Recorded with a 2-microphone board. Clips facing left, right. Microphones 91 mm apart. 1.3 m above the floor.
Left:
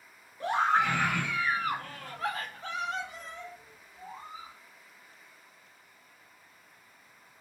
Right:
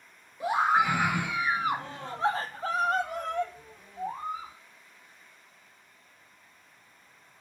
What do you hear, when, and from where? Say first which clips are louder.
0.4 s a scream: right 2 dB; 10° right (ahead or behind), 2 m; by 4.5 s 45° right (ahead or behind), 1.0 m